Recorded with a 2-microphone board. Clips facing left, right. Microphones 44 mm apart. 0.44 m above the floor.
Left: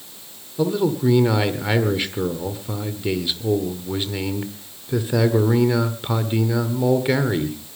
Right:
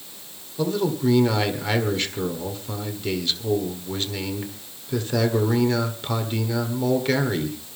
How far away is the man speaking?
About 1.5 m.